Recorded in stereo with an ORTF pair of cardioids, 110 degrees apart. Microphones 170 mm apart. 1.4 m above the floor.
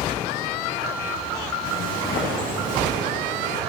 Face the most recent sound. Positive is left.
turn(degrees=45)